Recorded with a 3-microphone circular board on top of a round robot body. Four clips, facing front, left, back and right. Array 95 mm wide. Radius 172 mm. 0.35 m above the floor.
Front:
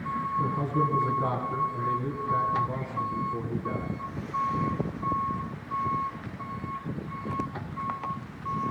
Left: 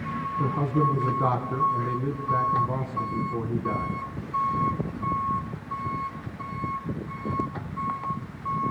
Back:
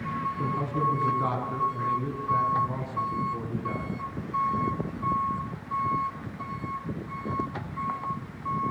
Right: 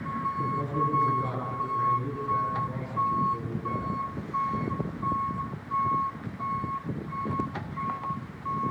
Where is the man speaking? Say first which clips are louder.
Left 6 dB, front 1 dB; 85° left, 4.5 m.